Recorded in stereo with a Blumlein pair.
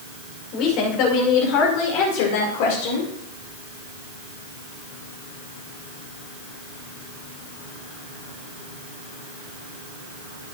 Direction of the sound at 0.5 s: 40° left.